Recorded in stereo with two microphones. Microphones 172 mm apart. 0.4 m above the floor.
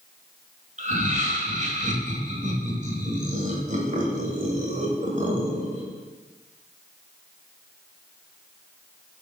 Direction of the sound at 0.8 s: 45° right (ahead or behind).